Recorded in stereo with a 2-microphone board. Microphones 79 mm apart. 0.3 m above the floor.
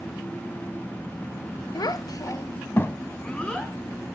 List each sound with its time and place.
1.8 s a child speaking: 55° left (ahead or behind), 0.8 m; by 3.7 s 10° left (ahead or behind), 1.7 m